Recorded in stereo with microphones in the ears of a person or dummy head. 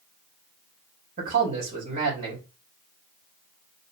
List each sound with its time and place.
1.2 s a man speaking: 50° right (ahead or behind), 2.5 m